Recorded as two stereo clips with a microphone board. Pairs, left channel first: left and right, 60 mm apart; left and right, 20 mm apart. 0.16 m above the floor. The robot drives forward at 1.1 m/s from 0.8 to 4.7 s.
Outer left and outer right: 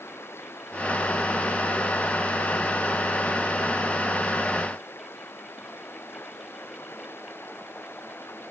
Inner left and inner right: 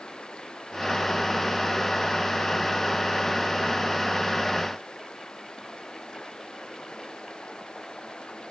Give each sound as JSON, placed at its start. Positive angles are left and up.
{"t": 0.0, "sound": "running water", "side_deg": 40}